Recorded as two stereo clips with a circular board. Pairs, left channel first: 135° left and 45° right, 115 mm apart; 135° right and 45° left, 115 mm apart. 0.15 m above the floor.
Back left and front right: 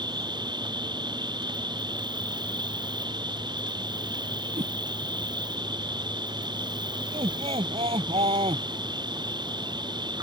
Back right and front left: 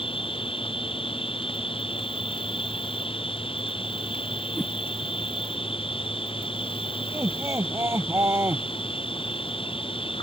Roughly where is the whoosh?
Ahead right.